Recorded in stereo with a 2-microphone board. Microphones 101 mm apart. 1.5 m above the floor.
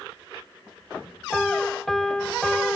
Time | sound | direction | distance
1.3 | a piano | centre (ahead or behind) | 0.8 m